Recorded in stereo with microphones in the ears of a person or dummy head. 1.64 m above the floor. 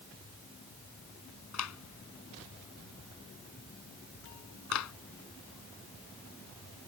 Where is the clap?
85° left.